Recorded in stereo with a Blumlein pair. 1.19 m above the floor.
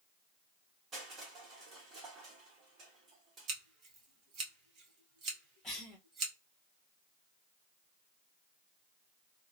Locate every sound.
0.9 s crushing: 25° right, 1.5 m
3.5 s scissors: 30° right, 1.1 m
5.6 s a cough: 15° left, 1.0 m